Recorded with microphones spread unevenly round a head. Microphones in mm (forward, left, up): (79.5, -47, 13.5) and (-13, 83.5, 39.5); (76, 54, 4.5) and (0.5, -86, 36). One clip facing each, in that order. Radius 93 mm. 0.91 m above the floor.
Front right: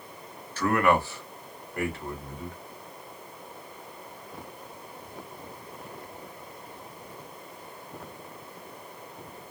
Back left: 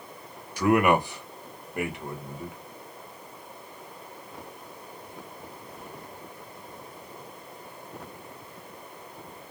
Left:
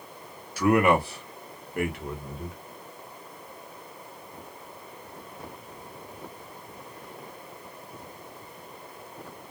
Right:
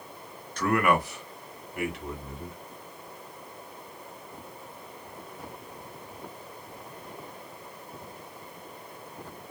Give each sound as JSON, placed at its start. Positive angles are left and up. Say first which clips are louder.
{"t": 0.6, "sound": "a man speaking", "louder": "back left 2 dB, left 4 dB", "azimuth_deg": 45, "distance_m": 0.5}